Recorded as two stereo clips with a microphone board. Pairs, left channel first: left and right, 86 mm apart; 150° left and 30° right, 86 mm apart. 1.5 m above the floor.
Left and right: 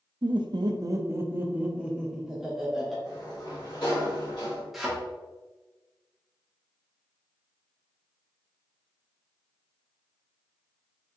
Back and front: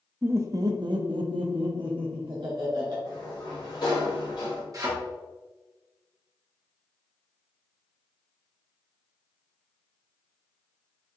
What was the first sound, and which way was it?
Laughter, 95° right.